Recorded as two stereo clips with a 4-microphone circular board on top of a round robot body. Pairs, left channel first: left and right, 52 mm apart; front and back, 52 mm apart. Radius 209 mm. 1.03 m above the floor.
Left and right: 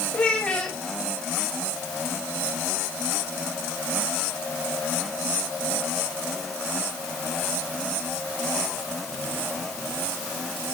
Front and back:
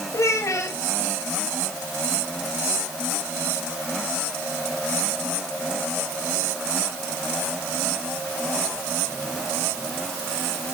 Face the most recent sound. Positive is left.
turn(degrees=20)